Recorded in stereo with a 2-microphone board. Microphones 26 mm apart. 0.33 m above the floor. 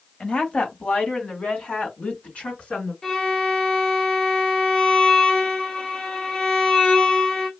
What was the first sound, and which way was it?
A woman speaking, 45° left (ahead or behind).